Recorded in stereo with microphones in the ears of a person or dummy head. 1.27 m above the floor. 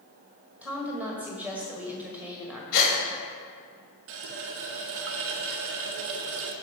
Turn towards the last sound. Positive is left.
turn(degrees=-65)  # may be behind; listen again after turning